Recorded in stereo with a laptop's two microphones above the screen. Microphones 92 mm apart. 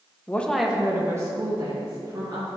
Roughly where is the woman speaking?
Left.